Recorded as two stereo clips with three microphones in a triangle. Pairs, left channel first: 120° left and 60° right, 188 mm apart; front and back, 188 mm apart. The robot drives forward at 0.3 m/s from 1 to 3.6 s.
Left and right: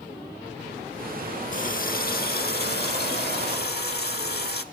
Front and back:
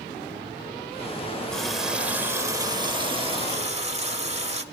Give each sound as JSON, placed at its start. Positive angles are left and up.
{"t": 1.5, "sound": "a running tap", "azimuth_deg": 85, "distance_m": 0.8}